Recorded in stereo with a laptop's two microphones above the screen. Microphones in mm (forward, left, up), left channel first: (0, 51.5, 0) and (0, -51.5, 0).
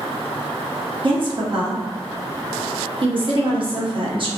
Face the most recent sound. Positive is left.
turn(degrees=-50)  # may be behind; listen again after turning